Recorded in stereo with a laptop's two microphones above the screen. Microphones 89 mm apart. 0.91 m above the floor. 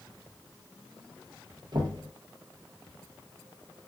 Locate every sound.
1.7 s knocking: 55° right (ahead or behind), 0.7 m